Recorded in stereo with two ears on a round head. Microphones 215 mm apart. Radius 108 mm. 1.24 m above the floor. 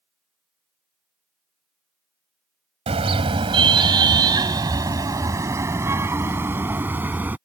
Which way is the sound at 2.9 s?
25° right (ahead or behind).